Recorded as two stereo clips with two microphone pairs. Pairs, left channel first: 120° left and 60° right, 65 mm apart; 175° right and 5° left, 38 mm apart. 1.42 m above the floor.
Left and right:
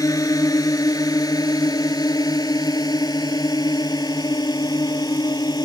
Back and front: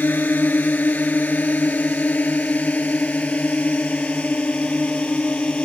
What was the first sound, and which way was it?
A drone, 150° left.